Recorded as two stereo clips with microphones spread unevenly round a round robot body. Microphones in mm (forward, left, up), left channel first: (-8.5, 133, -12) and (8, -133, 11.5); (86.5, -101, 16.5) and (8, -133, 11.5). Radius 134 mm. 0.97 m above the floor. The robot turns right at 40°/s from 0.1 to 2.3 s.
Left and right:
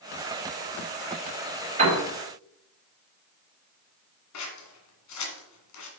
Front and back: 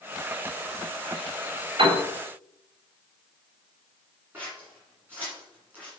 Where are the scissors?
120° left, 2 m.